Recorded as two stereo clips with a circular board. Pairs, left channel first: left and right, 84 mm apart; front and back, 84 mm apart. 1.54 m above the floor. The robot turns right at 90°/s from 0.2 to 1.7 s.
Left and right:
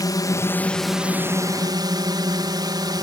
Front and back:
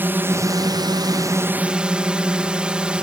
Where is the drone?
120° left; by 3.0 s 105° right.